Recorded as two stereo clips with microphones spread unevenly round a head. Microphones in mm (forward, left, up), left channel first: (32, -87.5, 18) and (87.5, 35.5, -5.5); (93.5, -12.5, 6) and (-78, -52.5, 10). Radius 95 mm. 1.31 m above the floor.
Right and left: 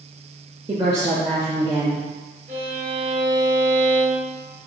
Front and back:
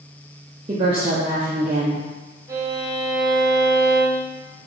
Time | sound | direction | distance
0.7 | a woman speaking | 130° left | 0.6 m
2.5 | a violin | 120° left | 0.6 m